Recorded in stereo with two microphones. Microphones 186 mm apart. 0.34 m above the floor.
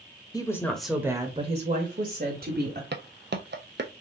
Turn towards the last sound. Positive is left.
turn(degrees=-65)  # may be behind; listen again after turning